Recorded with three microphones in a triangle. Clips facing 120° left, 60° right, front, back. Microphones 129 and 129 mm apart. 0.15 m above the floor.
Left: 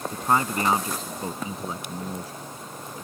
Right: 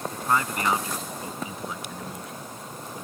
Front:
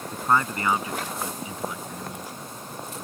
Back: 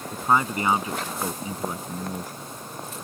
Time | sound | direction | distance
0.1 | a man speaking | 110° left | ?